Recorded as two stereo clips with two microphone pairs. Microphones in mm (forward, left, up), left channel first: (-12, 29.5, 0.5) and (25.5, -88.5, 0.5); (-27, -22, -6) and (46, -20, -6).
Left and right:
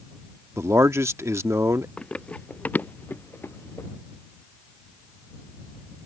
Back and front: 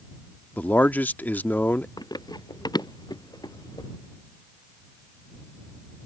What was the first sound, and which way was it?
A man speaking, 125° right.